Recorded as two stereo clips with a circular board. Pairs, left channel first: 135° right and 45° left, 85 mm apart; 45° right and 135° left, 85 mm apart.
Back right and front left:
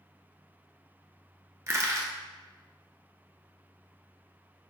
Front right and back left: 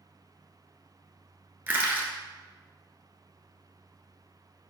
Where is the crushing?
80° left, 1.0 m.